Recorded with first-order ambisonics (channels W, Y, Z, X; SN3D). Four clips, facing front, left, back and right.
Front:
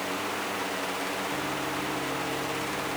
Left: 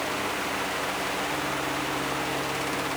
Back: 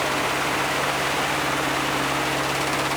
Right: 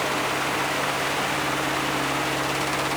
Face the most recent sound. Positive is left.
No sound to turn to.